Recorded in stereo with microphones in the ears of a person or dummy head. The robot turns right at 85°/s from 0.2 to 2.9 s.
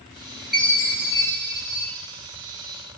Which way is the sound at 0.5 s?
Straight ahead.